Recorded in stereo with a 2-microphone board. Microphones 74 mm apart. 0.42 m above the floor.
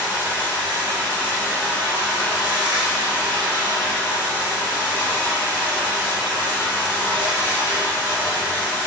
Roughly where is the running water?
Right.